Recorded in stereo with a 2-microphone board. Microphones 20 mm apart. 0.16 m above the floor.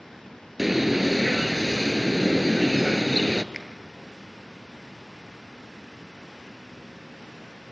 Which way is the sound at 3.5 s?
20° right (ahead or behind).